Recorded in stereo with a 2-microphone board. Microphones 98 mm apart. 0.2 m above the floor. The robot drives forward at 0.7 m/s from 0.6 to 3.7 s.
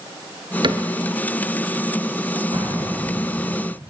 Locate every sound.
0.6 s a cupboard door: 50° right (ahead or behind), 1.4 m
2.5 s an explosion: 75° right (ahead or behind), 10 m; by 3.5 s 80° right, 10 m